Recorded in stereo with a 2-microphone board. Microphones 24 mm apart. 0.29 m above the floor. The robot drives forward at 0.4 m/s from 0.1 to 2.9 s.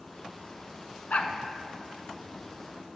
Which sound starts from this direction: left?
A dog barking, at 1.1 s.